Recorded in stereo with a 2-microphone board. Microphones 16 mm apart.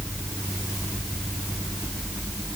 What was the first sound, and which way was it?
Only background noise.